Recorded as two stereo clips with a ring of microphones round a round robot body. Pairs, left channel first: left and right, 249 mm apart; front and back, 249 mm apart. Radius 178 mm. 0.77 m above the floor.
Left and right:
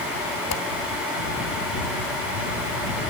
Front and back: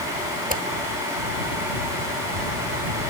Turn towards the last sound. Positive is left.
turn(degrees=125)